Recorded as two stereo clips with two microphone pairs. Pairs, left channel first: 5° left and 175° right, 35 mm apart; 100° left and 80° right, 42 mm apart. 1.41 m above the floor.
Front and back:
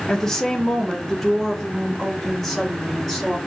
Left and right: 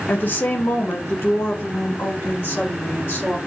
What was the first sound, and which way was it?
A woman speaking, 75° left.